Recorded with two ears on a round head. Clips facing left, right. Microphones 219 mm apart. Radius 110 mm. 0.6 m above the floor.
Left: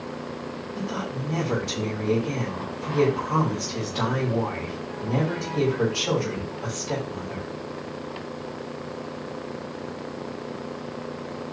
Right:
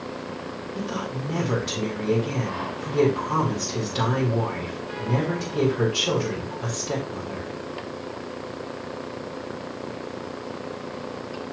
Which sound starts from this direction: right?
A woman speaking, at 0.8 s.